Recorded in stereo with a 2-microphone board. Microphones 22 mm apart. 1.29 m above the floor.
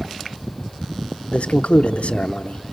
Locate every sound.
1.3 s a man speaking: 70° left (ahead or behind), 0.8 m